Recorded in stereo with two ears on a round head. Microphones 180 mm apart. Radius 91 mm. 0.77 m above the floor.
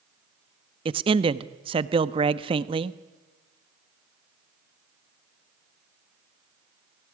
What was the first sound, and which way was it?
A man speaking, 25° right (ahead or behind).